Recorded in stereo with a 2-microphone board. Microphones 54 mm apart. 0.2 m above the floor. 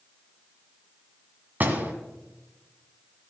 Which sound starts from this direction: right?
A door slam, at 1.6 s.